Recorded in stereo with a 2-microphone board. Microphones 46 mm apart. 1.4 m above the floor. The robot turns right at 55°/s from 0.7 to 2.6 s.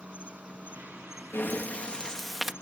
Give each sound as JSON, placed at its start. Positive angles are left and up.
{"t": 0.0, "sound": "an insect", "azimuth_deg": -35}
{"t": 1.3, "sound": "breathing", "azimuth_deg": 120}